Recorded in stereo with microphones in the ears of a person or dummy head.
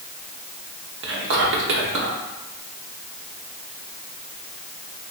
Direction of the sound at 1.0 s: 50° right (ahead or behind).